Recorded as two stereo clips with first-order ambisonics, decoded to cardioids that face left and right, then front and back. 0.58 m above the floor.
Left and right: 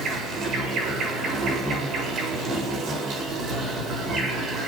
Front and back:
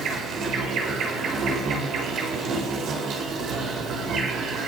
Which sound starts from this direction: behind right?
An insect, at 0.0 s.